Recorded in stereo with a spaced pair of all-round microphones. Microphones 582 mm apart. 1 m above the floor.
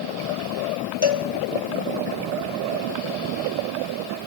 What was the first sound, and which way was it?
A cowbell, 45° left (ahead or behind).